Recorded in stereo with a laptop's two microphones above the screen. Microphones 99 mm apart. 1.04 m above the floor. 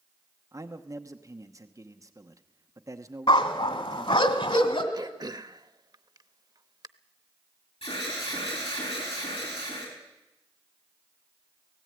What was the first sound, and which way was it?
A man speaking, 35° right (ahead or behind).